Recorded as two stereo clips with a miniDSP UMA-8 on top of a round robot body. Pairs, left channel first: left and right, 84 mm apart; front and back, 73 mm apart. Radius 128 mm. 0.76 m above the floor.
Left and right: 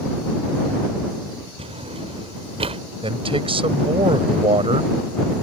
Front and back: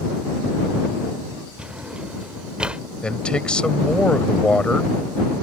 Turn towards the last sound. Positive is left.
turn(degrees=-80)